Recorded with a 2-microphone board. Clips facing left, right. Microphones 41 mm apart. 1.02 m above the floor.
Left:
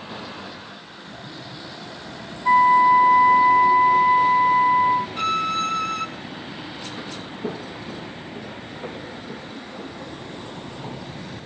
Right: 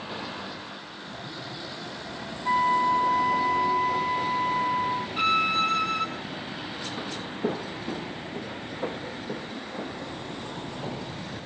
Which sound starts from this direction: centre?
A violin, at 5.2 s.